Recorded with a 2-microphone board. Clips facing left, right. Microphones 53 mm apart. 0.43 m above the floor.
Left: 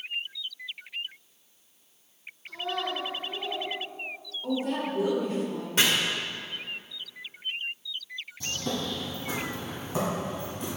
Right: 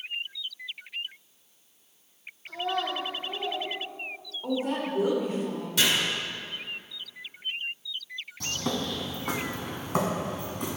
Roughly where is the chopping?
Left.